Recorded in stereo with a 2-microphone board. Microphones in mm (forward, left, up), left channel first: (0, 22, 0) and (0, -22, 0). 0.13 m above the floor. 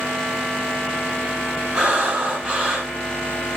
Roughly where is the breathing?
Right.